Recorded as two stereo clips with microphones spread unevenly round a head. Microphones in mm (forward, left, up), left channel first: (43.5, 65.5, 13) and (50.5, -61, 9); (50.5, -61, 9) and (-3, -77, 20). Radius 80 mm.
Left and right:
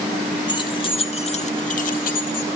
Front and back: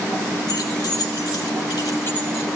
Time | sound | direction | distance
0.5 | keys jangling | 40° left | 2.5 m